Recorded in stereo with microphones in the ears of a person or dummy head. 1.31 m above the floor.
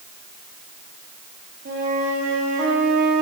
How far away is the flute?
About 2.5 m.